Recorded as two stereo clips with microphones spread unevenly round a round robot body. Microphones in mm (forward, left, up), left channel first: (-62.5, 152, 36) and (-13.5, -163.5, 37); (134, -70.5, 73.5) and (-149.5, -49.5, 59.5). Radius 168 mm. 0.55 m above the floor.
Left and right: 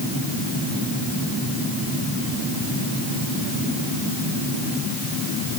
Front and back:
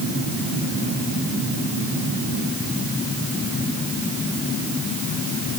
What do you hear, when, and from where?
Only background noise.